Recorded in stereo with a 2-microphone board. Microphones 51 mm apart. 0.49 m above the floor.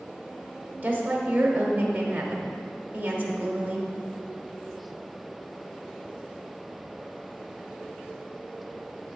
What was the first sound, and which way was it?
A woman speaking, 30° right (ahead or behind).